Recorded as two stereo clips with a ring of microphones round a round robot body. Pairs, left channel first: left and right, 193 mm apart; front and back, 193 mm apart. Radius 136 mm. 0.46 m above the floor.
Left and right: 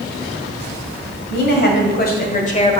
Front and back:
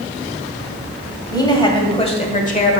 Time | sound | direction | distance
1.3 | a woman speaking | 70° left | 2 m